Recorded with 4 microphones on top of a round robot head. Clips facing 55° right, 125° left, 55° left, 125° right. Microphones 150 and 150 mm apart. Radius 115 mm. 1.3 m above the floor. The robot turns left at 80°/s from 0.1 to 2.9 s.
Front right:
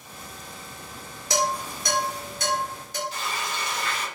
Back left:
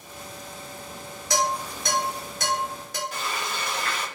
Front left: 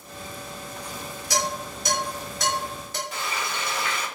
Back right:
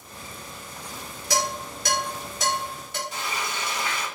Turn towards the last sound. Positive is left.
turn(degrees=85)